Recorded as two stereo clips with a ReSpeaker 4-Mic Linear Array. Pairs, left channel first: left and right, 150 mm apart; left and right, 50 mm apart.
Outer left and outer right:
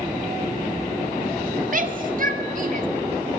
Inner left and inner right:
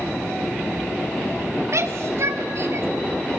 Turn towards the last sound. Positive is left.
turn(degrees=-60)  # may be behind; listen again after turning